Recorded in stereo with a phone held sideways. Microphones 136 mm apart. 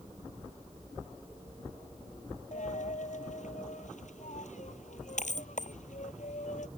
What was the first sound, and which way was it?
A dropped coin, 65° left (ahead or behind).